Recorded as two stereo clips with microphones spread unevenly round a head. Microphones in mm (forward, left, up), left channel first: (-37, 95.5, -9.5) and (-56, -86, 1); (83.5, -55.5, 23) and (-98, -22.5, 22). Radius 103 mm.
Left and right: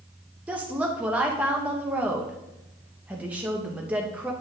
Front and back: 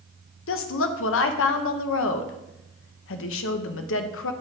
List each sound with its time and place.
0.5 s a woman speaking: 10° right, 0.8 m